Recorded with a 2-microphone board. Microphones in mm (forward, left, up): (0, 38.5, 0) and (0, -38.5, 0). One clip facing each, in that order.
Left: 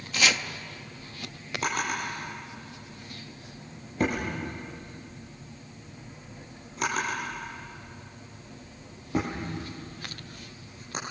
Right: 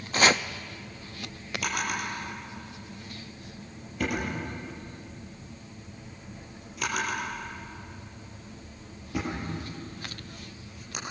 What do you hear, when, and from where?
0.1 s chopping: 40° right (ahead or behind), 0.6 m
1.6 s a drawer: 35° left (ahead or behind), 6.5 m